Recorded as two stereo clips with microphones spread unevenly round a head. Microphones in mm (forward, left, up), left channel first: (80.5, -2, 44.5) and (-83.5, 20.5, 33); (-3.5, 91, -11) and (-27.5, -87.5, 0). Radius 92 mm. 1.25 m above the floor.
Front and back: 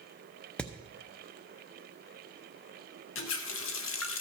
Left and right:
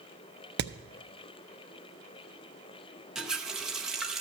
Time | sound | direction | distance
0.6 | hammering | 90° right | 0.6 m
3.1 | a running tap | 10° right | 0.7 m